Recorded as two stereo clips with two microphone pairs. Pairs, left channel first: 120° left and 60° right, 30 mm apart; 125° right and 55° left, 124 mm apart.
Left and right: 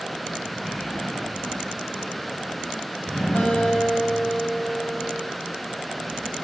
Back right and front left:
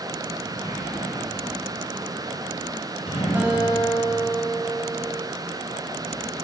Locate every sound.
0.5 s a sliding door: 165° right, 9.5 m
3.4 s a guitar: 130° left, 5 m